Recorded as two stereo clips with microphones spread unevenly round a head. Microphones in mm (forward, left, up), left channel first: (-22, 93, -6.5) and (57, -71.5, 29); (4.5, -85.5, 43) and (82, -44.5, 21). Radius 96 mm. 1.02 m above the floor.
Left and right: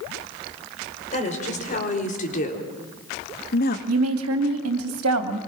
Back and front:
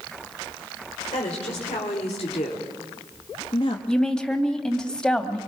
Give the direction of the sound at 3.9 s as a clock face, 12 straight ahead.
2 o'clock.